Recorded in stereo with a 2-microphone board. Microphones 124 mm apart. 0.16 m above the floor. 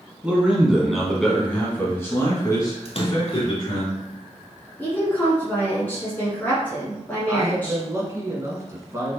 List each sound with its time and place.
0.2 s a man speaking: 10° right (ahead or behind), 1.5 m; by 3.9 s 40° left (ahead or behind), 1.8 m
2.9 s a splash: 55° left (ahead or behind), 0.7 m
4.8 s a woman speaking: 15° left (ahead or behind), 1.3 m
7.3 s a man speaking: 25° right (ahead or behind), 1.4 m